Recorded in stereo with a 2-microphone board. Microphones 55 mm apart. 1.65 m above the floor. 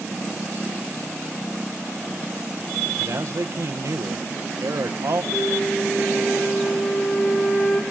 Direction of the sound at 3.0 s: 60° right (ahead or behind).